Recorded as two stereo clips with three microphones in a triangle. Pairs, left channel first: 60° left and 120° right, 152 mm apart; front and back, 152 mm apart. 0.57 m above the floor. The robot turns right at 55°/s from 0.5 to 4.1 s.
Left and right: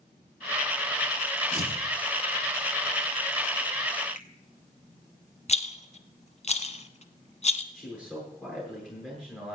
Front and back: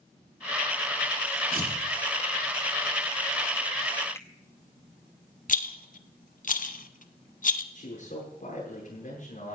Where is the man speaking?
25° right, 8.5 m.